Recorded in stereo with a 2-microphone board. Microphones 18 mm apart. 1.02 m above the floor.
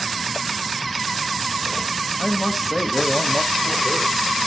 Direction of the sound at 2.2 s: 20° left (ahead or behind).